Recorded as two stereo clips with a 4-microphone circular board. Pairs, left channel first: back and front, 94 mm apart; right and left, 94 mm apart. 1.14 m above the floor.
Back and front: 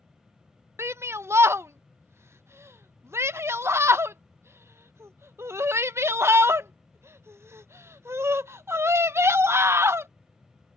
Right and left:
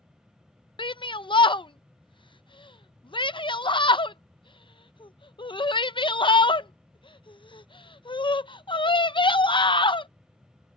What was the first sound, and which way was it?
A shout, 60° right.